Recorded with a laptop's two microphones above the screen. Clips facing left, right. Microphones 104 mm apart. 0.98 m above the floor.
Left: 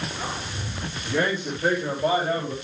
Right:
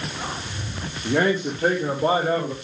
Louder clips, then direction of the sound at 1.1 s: Right 4 dB; 75° right (ahead or behind).